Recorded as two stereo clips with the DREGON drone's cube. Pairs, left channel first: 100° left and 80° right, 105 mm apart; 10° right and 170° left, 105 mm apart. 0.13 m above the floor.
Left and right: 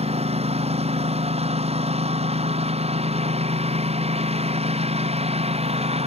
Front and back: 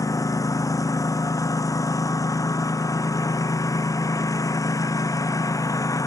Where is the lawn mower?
70° right.